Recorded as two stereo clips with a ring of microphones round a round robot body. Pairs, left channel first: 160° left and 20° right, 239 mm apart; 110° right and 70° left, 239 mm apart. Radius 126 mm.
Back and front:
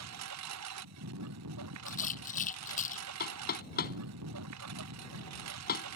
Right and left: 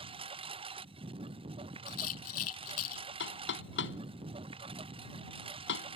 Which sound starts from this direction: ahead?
A lawn mower, at 0.0 s.